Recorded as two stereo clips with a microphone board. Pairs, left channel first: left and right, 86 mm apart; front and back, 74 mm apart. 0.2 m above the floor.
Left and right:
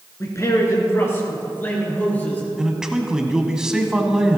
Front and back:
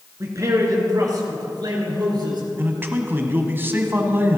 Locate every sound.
0.2 s a man speaking: 135° left, 2.5 m; by 2.4 s 160° left, 4 m
2.6 s a man speaking: 165° right, 1.2 m